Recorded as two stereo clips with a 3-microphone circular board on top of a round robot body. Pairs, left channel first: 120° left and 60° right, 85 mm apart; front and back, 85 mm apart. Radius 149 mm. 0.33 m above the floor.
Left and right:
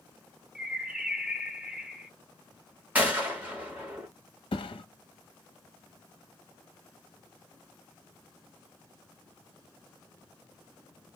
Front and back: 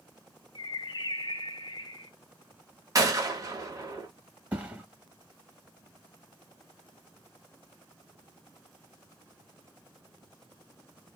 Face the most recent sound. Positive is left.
turn(degrees=110)